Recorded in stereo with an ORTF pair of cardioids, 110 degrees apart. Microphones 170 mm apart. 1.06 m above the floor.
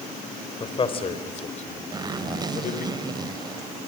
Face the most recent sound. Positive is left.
turn(degrees=-25)